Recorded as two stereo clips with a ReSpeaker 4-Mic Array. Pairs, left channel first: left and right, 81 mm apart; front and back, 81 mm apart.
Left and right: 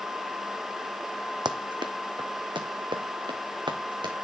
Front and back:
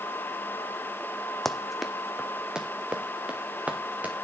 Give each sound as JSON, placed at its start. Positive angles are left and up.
{"t": 1.4, "sound": "running footsteps", "azimuth_deg": -85, "distance_m": 1.1}